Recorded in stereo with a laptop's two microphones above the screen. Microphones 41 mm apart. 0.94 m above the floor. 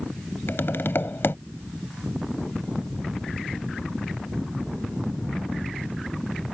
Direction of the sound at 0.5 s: 70° left (ahead or behind).